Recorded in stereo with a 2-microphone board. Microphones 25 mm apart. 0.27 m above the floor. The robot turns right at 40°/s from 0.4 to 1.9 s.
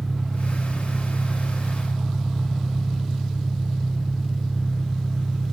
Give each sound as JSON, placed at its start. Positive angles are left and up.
{"t": 0.0, "sound": "an engine running", "azimuth_deg": -35, "distance_m": 7.0}